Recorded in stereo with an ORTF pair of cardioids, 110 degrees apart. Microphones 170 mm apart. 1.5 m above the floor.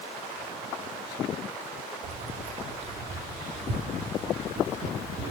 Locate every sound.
2.0 s keys jangling: 50° right, 2.5 m